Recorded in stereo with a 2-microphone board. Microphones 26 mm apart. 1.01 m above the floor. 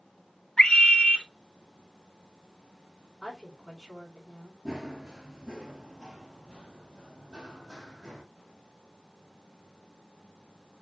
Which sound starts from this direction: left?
A scream, at 0.6 s.